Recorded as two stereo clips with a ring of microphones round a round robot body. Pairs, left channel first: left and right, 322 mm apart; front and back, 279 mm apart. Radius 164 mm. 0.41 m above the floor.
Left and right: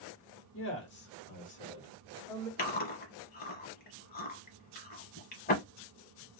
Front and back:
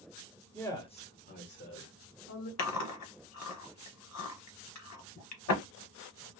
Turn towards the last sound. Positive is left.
turn(degrees=25)